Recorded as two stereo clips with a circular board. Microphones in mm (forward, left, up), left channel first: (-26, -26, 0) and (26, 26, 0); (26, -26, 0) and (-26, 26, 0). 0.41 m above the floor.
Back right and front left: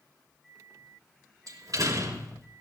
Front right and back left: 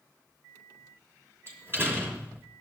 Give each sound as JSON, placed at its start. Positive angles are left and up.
{"t": 1.5, "sound": "a door slam", "azimuth_deg": 80, "distance_m": 4.0}